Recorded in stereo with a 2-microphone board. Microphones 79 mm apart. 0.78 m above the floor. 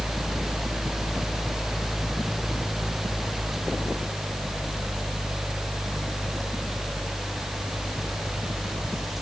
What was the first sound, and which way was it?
Only background noise.